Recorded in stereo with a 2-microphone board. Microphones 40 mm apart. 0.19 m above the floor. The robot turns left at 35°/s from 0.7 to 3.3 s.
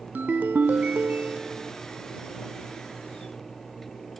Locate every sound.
0.1 s a ringtone: 115° right; by 1.7 s 155° right